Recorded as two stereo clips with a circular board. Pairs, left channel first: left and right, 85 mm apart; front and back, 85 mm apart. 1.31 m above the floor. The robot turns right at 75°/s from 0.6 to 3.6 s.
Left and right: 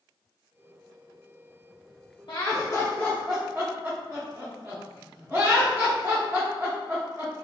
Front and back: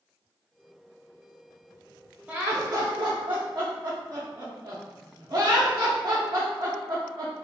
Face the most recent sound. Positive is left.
turn(degrees=-150)